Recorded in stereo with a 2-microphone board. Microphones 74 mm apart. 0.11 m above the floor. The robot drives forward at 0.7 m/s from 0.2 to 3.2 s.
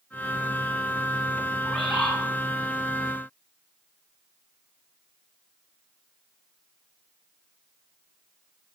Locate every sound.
1.6 s a bird: 5° left (ahead or behind), 1.1 m